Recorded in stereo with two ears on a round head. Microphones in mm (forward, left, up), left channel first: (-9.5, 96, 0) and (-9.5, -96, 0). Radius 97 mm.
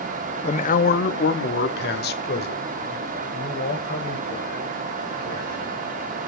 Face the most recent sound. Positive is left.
turn(degrees=45)  # may be behind; listen again after turning